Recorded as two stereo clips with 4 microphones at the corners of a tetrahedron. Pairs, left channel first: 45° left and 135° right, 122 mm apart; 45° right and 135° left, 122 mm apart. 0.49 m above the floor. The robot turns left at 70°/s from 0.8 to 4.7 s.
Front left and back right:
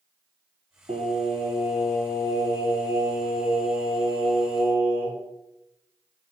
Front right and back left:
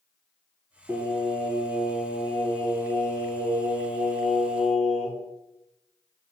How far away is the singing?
About 1.7 m.